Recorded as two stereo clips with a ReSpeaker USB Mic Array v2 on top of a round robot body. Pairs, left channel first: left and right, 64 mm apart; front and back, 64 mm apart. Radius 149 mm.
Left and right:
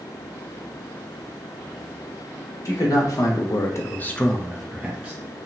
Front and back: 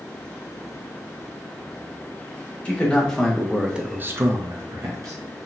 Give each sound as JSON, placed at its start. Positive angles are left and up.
{"t": 2.6, "sound": "a man speaking", "azimuth_deg": 70, "distance_m": 1.1}